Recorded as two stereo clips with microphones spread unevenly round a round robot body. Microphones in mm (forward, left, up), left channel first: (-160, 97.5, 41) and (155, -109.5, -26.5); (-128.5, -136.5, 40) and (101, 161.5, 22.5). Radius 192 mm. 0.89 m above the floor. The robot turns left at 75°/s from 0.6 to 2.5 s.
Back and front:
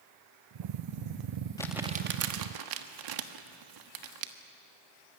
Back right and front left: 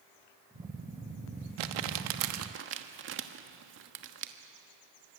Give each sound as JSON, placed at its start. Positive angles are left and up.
{"t": 1.6, "sound": "crumpling", "azimuth_deg": 65, "distance_m": 1.3}